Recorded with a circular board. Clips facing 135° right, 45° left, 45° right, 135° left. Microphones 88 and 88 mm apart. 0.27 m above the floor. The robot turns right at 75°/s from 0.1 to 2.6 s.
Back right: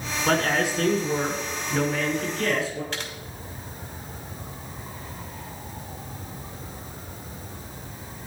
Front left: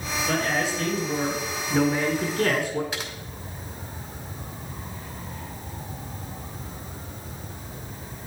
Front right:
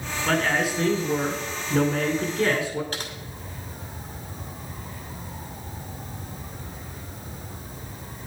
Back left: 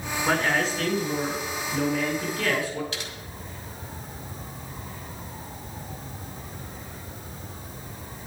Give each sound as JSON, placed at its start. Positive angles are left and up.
{"t": 0.3, "sound": "a man speaking", "azimuth_deg": -140, "distance_m": 1.9}
{"t": 2.9, "sound": "typing on a keyboard", "azimuth_deg": -35, "distance_m": 1.9}